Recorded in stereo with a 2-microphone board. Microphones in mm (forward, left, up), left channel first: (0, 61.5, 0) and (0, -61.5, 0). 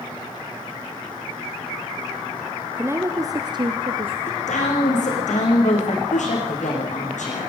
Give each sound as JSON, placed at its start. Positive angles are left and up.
{"t": 2.8, "sound": "a woman speaking", "side_deg": -20, "distance_m": 1.2}
{"t": 4.3, "sound": "a woman speaking", "side_deg": 80, "distance_m": 8.0}